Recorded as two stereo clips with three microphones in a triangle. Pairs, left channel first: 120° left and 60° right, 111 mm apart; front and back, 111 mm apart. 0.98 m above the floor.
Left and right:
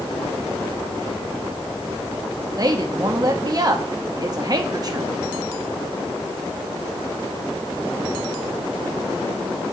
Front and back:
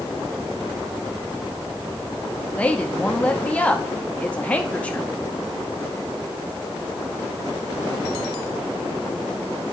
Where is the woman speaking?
70° right, 0.9 m.